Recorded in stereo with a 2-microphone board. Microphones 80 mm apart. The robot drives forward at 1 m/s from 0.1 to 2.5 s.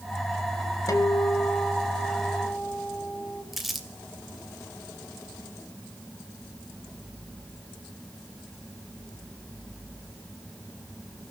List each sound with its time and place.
0.9 s a guitar: 45° left (ahead or behind), 2 m; by 3.4 s 30° left (ahead or behind), 3 m
3.5 s crumpling: 5° right (ahead or behind), 2 m